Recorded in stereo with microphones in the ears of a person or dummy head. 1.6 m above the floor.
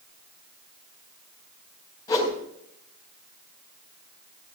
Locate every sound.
2.1 s a whoosh: 20° left (ahead or behind), 3 m